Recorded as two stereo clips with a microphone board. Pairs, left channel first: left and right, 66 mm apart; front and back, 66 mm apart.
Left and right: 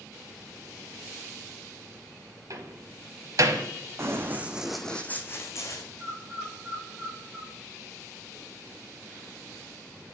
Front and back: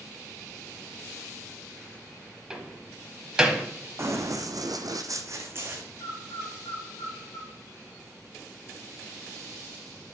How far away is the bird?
About 2 m.